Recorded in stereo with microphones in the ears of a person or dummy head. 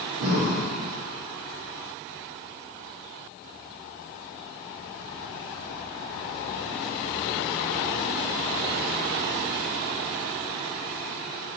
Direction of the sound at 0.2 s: 75° right (ahead or behind).